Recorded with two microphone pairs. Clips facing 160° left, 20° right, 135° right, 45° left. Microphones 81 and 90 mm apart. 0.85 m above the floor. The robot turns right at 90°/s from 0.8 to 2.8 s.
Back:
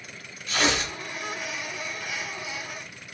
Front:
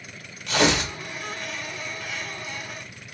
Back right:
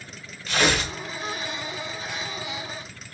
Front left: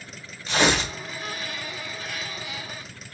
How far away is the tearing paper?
About 1.2 m.